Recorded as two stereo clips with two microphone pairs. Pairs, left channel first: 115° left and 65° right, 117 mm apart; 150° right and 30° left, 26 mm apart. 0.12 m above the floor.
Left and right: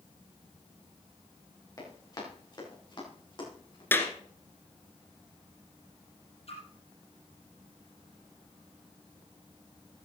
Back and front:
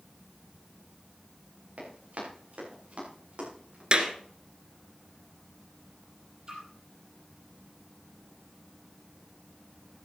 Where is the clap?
50° left, 1.7 m.